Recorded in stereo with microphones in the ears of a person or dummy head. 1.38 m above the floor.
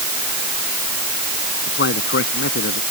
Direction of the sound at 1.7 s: 70° left (ahead or behind).